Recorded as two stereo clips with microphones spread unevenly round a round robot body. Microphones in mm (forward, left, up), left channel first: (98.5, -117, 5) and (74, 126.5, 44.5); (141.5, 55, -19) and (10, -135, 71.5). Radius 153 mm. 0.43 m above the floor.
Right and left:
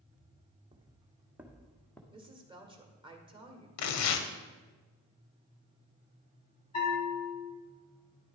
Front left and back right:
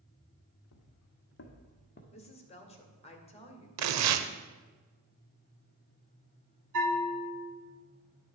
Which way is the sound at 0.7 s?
30° left.